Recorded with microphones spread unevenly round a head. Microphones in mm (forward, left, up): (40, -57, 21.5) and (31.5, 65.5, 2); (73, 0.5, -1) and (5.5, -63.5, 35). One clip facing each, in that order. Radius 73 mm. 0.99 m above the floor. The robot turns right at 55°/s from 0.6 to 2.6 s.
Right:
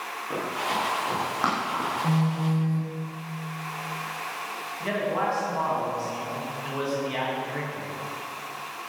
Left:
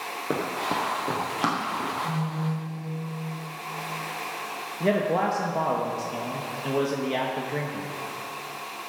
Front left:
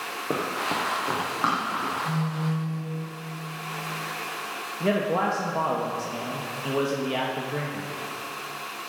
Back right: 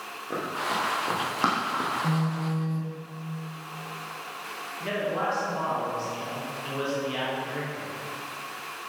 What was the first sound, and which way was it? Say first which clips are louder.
Running footsteps: left 1 dB, front left 2 dB; 100° left.